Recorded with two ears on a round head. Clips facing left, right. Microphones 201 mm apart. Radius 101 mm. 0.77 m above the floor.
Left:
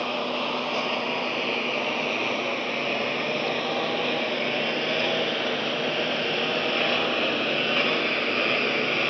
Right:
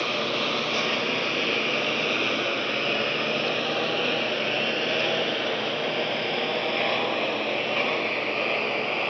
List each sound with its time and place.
0.0 s a lawn mower: 25° right (ahead or behind); by 9.1 s 20° left (ahead or behind)